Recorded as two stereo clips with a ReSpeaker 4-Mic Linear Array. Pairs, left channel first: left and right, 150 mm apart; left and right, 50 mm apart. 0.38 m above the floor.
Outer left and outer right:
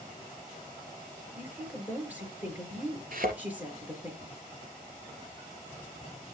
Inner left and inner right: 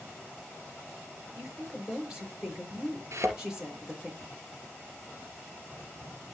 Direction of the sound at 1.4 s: 10° right (ahead or behind).